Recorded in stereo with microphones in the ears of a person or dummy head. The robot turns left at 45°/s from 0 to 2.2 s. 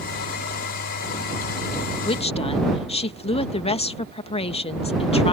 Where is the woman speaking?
25° left (ahead or behind); by 5.3 s 30° left (ahead or behind).